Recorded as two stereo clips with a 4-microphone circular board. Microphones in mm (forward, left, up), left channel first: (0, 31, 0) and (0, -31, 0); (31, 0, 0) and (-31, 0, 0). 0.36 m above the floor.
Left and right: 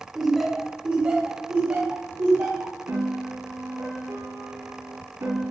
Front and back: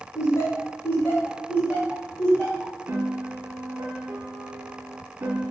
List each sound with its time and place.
0.1 s laughter: 5° left, 1.4 m; by 2.7 s 70° right, 2 m
2.9 s a piano: 125° right, 1.2 m